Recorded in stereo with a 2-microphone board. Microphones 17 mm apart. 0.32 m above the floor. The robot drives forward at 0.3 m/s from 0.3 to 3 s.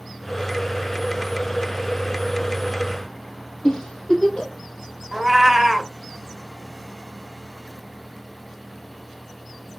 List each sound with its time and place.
3.6 s a giggle: 60° left (ahead or behind), 2 m
5.1 s a cat meowing: 20° right (ahead or behind), 0.5 m